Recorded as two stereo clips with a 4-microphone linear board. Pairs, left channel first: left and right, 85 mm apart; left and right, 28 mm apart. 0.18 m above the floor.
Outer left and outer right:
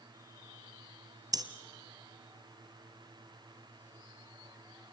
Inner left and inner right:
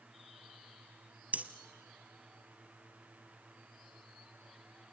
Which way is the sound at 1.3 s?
50° right (ahead or behind).